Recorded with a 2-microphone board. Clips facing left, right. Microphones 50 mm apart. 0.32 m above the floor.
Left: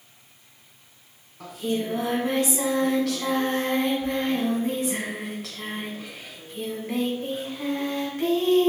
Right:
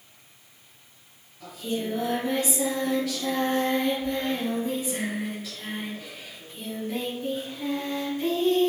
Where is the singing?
70° left (ahead or behind), 1.3 m.